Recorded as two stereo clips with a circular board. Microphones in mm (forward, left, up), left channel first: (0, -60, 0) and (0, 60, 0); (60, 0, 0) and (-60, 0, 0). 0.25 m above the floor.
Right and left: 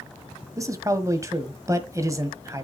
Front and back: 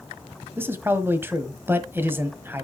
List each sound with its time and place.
0.6 s a man speaking: 125° left, 1.3 m